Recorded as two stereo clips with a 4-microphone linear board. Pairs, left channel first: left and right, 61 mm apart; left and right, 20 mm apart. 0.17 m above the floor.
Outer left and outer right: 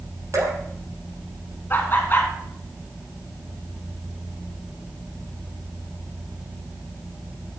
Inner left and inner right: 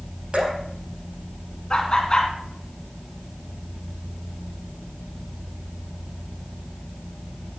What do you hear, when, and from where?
0.3 s dripping: 50° right (ahead or behind), 5 m
1.7 s laughter: 30° left (ahead or behind), 2 m